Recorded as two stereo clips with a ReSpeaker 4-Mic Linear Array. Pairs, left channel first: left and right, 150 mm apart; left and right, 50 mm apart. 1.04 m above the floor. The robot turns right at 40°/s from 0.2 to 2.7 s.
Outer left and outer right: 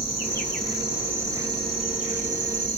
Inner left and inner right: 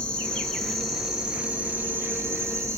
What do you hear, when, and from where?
0.0 s an insect: 155° left, 1.4 m; by 2.8 s 105° right, 1.4 m